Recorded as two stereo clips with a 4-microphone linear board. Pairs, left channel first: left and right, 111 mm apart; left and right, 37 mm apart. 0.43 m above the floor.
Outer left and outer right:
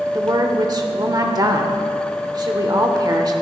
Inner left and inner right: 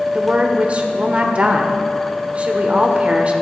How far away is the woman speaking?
About 1.0 m.